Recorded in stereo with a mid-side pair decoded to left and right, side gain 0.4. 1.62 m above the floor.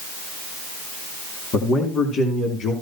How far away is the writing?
I don't hear writing.